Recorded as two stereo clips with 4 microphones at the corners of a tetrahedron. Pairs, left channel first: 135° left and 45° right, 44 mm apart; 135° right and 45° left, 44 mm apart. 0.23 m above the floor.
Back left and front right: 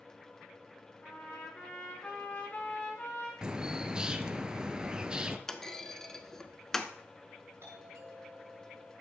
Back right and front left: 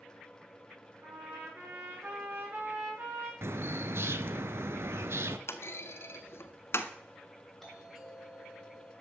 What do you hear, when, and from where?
1.0 s a trumpet: 75° left, 8 m
3.4 s a bird: 25° left, 0.8 m
5.5 s a clunk: 145° right, 0.9 m
7.6 s a doorbell: 50° right, 5 m